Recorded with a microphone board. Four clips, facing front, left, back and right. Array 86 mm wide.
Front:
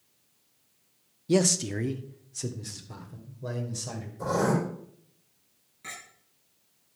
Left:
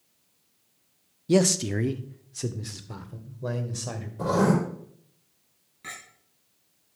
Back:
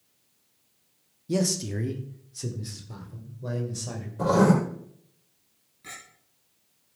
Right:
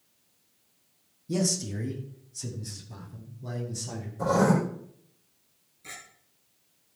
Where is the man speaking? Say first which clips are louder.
Left 8 dB, front 3 dB; 60° left, 0.7 m; by 4.1 s 90° left, 2.5 m.